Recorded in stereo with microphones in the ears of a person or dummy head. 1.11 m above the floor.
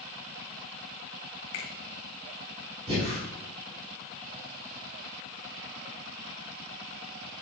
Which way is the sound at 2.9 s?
30° right (ahead or behind).